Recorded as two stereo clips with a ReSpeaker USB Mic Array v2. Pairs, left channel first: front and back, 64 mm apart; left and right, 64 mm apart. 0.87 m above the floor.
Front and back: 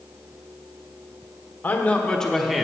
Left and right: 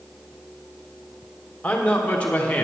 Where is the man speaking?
35° left, 1.1 m; by 2.6 s 115° left, 0.9 m.